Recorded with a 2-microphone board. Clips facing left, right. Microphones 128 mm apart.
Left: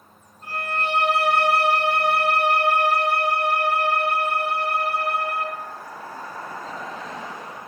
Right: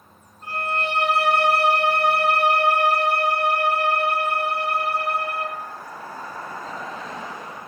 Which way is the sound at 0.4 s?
25° right (ahead or behind).